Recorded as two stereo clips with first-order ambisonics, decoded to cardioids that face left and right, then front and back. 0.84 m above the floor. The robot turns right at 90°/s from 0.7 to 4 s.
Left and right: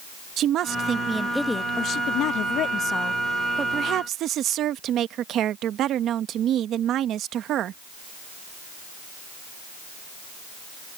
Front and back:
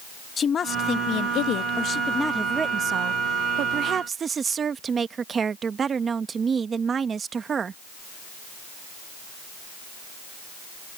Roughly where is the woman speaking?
Ahead right.